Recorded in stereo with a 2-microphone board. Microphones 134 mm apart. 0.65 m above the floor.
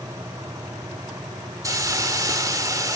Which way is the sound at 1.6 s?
25° right (ahead or behind).